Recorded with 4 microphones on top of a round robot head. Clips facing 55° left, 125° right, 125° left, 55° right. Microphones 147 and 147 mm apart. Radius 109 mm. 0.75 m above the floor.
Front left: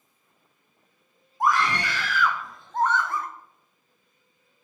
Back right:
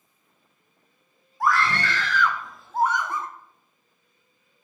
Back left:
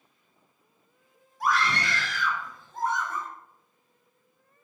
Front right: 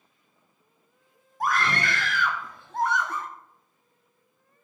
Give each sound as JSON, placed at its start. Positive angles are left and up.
{"t": 1.4, "sound": "a scream", "azimuth_deg": -15, "distance_m": 2.5}